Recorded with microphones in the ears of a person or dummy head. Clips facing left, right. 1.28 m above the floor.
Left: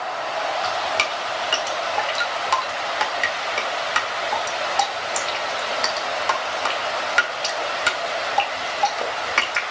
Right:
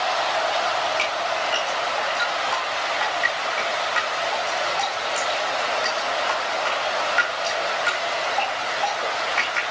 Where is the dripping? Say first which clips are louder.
Right 1 dB; 55° left (ahead or behind), 1.6 m.